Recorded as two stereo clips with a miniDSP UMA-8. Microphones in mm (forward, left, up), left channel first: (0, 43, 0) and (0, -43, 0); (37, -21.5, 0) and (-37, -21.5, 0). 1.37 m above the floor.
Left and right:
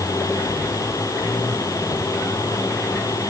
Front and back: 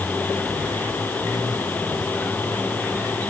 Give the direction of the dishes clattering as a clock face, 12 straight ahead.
I don't hear dishes clattering.